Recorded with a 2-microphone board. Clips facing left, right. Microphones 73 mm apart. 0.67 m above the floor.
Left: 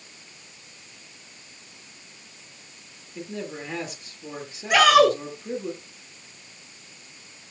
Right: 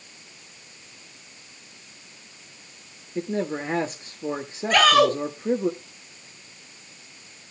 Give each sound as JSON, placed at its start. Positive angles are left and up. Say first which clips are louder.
{"t": 3.1, "sound": "a man speaking", "louder": "right 7 dB", "side_deg": -40, "distance_m": 1.4}
{"t": 4.7, "sound": "a shout", "louder": "left 2 dB", "side_deg": 10, "distance_m": 3.0}